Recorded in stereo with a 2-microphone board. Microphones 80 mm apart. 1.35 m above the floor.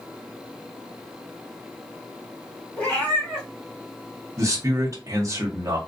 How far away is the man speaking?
About 1.0 m.